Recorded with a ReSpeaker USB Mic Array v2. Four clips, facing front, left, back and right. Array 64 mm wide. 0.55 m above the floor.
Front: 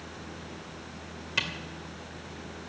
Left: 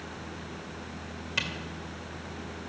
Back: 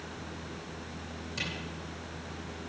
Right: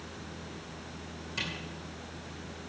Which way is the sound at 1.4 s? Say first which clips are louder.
Left 4 dB, front 6 dB; 40° left.